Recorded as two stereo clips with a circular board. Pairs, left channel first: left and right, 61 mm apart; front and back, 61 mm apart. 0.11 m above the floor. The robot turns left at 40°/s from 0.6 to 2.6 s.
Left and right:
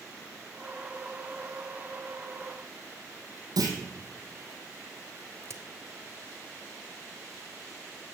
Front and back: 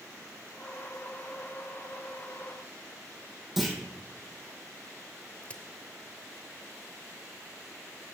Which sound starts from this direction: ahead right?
A crack, at 5.4 s.